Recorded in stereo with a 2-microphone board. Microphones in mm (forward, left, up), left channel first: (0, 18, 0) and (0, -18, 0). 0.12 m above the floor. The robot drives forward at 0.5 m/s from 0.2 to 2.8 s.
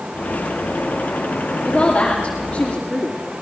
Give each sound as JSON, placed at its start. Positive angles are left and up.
{"t": 1.6, "sound": "a woman speaking", "side_deg": 30, "distance_m": 8.0}